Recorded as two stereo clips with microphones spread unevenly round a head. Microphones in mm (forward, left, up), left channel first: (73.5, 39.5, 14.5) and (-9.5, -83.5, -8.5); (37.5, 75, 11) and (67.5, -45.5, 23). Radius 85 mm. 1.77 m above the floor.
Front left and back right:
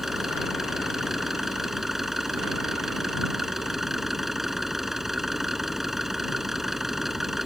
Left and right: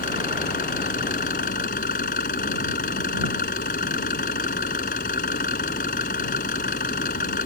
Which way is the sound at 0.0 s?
145° left.